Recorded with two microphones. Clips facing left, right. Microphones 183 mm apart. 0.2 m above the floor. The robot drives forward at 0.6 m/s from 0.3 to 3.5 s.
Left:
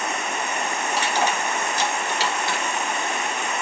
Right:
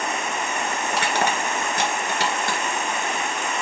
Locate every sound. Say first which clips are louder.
0.9 s crushing: even; 65° right (ahead or behind), 2.5 m; by 2.6 s 50° right (ahead or behind), 3 m